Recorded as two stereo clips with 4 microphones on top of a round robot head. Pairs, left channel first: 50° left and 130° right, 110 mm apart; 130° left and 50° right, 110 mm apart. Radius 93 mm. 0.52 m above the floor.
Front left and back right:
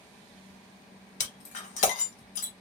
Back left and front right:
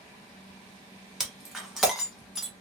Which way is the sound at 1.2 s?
35° left.